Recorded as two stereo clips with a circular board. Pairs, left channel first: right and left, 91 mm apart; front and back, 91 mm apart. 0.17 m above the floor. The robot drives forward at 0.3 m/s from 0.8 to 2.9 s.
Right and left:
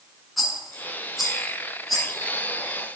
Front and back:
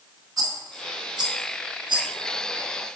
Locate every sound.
0.4 s a rattle: straight behind, 0.8 m